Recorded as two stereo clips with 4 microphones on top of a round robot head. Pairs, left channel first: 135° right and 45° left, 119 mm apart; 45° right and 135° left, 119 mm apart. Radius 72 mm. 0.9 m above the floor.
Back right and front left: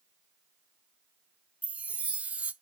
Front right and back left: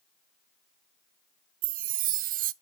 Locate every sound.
1.6 s a chime: 125° left, 0.5 m